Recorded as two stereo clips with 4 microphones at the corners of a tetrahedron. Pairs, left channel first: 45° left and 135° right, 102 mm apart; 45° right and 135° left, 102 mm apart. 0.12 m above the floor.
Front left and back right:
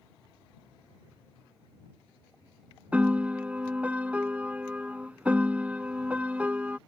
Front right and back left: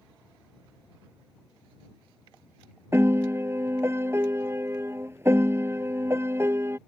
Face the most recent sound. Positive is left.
turn(degrees=165)